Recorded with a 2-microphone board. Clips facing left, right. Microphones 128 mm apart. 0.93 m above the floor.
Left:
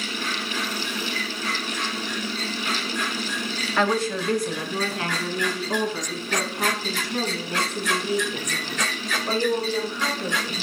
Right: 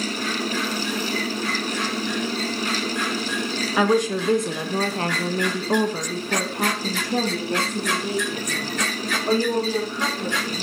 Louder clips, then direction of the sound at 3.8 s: Right 3 dB; 10° right (ahead or behind).